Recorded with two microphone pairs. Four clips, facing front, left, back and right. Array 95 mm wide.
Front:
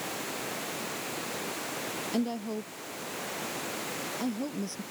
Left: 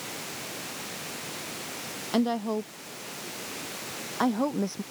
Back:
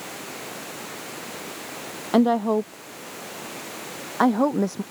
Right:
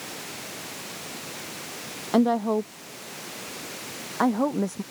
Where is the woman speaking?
150° right; by 4.8 s 165° right.